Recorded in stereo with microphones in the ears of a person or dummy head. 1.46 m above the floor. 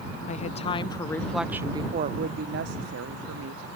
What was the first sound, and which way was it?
A woman speaking, 40° left (ahead or behind).